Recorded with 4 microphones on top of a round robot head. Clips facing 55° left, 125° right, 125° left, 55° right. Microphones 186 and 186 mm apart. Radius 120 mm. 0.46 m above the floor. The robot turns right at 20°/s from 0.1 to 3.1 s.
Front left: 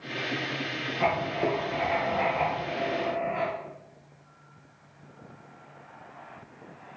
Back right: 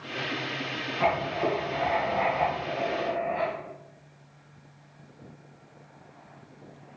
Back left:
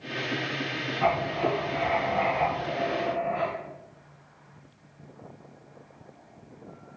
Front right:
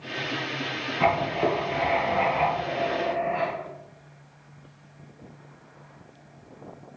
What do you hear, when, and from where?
1.0 s writing: 30° right, 2.5 m; by 3.5 s 15° left, 2.5 m